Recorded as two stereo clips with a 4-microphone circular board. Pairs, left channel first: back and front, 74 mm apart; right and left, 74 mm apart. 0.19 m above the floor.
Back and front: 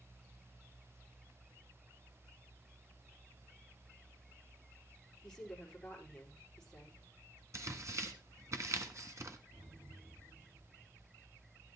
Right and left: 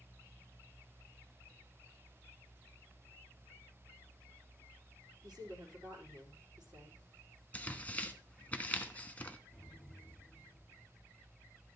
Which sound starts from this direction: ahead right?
Tearing paper, at 7.5 s.